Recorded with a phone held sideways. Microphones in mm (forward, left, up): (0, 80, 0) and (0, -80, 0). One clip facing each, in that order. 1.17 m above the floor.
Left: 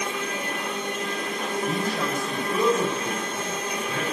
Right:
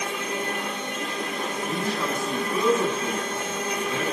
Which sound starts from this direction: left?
A man speaking, at 1.7 s.